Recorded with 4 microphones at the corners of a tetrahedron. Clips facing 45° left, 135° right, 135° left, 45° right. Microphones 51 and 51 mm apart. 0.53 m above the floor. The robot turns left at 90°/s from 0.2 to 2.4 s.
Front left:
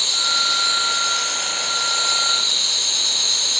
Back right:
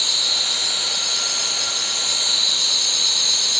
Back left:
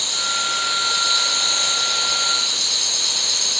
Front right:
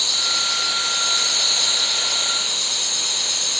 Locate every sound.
0.0 s an insect: 25° right, 6 m; by 3.6 s 135° left, 6 m